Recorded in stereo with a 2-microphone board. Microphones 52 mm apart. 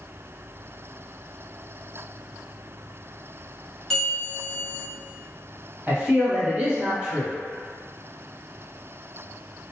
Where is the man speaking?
20° right (ahead or behind), 1.3 m.